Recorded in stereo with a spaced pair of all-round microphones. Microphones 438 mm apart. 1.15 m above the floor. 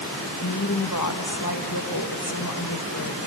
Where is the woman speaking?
45° left (ahead or behind), 1.6 m.